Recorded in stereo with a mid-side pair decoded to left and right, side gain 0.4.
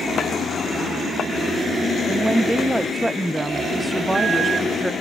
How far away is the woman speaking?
About 1.6 m.